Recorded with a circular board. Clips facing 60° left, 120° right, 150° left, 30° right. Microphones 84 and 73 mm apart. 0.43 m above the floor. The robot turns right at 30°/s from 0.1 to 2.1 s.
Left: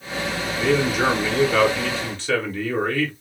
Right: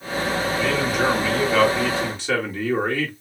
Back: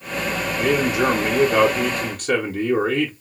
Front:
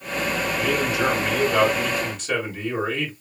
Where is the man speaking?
115° left, 1.5 m; by 3.1 s 160° left, 1.5 m.